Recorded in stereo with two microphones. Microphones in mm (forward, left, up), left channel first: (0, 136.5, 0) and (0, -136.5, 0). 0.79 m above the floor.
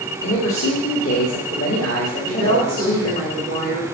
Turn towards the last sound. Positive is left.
turn(degrees=-35)  # may be behind; listen again after turning